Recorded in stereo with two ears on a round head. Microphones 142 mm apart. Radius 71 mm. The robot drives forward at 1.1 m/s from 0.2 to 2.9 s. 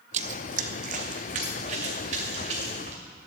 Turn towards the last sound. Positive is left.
turn(degrees=-45)  # may be behind; listen again after turning